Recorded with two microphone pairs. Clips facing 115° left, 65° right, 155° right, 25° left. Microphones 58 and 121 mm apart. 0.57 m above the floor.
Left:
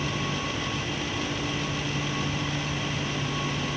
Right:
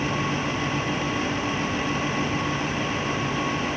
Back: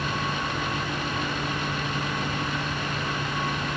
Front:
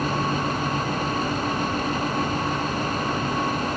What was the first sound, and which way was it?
Only background noise.